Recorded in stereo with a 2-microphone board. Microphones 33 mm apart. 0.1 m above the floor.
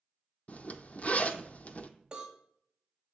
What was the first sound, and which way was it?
A zipper, 45° left (ahead or behind).